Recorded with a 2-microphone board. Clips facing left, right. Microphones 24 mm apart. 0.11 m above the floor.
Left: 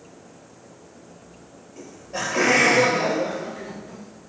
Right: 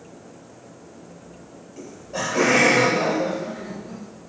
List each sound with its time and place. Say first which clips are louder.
1.8 s laughter: right 1 dB; 10° left (ahead or behind), 1.8 m; by 4.0 s 50° left (ahead or behind), 2.5 m